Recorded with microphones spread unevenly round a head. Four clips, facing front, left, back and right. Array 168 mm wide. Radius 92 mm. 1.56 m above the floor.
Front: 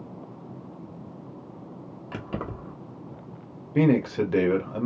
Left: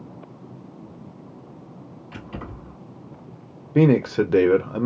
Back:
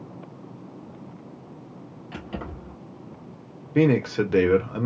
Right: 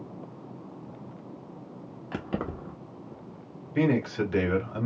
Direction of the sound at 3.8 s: 95° left.